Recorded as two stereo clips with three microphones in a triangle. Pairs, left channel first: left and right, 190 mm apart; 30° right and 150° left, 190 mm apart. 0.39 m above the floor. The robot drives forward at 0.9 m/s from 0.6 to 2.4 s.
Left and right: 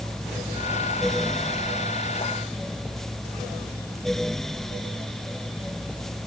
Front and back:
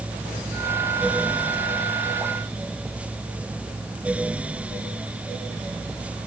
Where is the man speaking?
No man speaking in this recording.